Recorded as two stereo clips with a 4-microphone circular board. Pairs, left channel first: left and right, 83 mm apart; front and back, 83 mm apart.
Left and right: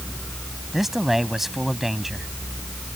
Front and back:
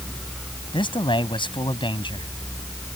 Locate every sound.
0.7 s a man speaking: 5° right